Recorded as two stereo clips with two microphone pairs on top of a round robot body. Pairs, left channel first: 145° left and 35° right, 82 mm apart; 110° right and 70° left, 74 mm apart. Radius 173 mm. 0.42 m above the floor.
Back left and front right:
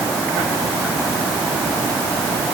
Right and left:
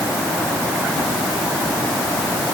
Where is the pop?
I don't hear a pop.